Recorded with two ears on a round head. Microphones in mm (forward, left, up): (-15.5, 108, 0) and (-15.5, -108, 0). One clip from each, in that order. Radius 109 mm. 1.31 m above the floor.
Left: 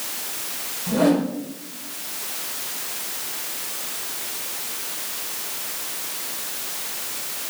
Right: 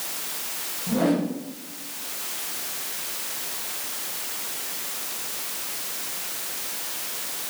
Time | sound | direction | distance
0.9 | a whoosh | 45° left (ahead or behind) | 5 m